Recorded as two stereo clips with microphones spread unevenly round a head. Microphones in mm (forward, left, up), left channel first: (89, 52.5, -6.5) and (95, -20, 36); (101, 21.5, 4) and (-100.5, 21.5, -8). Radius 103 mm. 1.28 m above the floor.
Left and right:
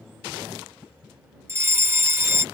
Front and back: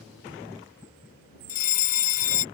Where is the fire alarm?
20° right.